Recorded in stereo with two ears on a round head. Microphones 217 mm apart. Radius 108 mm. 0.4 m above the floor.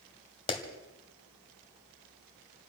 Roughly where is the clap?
Left.